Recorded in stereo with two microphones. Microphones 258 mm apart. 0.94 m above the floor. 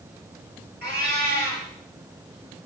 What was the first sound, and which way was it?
A cat meowing, 40° right (ahead or behind).